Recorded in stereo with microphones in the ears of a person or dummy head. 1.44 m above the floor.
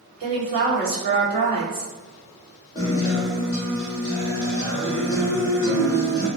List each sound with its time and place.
0.2 s a woman speaking: 40° right (ahead or behind), 1.6 m
2.8 s a guitar: 20° left (ahead or behind), 0.7 m